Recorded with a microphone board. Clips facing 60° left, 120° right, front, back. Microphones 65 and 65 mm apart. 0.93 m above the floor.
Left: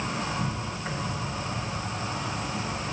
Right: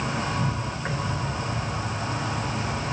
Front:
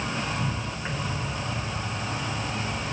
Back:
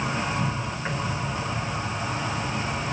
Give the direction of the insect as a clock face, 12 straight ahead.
3 o'clock.